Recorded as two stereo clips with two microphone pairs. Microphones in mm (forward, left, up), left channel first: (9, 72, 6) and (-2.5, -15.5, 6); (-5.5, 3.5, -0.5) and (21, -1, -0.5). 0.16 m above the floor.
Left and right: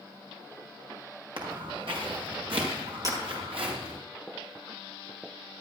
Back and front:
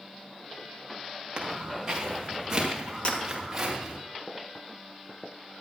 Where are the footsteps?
70° right, 5.5 m; by 4.0 s 85° right, 7.5 m.